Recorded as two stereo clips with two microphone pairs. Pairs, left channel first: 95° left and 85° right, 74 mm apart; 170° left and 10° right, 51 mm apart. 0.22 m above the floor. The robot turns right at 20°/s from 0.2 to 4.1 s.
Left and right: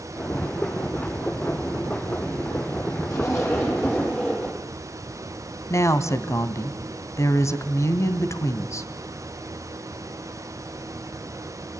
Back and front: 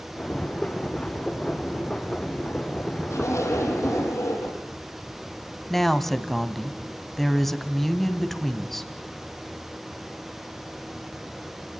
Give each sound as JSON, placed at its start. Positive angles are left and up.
{"t": 3.1, "sound": "a zipper", "azimuth_deg": 145, "distance_m": 9.5}
{"t": 5.7, "sound": "a woman speaking", "azimuth_deg": 80, "distance_m": 1.5}